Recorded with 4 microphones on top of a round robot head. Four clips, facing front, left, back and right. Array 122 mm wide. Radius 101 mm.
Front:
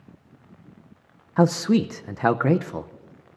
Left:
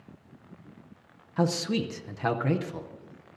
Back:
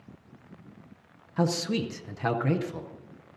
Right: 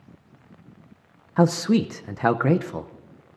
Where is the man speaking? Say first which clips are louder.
Right 8 dB, front 8 dB; 40° right, 0.7 m.